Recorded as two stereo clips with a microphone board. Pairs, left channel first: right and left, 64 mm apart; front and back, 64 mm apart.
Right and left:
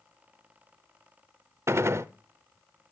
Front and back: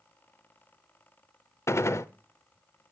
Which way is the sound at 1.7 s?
45° left.